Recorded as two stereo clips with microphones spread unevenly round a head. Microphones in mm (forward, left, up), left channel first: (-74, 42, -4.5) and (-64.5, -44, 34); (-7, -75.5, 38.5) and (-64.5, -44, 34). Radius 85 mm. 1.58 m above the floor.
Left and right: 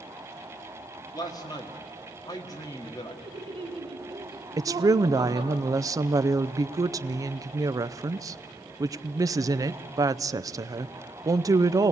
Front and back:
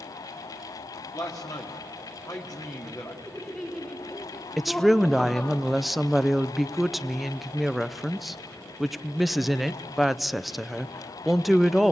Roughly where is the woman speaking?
Behind right.